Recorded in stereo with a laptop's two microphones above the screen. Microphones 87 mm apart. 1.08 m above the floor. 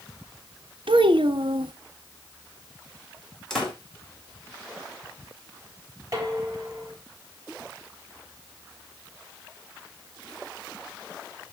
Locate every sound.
0.9 s a child speaking: 75° right (ahead or behind), 0.9 m
3.5 s a door slam: 5° left (ahead or behind), 3 m
6.1 s dishes clattering: 40° right (ahead or behind), 5 m